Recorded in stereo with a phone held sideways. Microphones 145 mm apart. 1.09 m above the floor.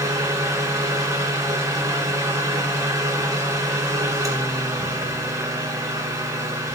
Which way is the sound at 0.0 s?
25° right (ahead or behind).